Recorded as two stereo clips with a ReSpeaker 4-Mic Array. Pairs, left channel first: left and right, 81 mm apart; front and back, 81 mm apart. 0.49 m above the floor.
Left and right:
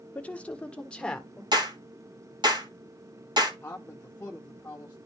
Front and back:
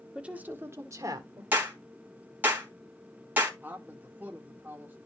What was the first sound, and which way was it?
A woman speaking, 120° left.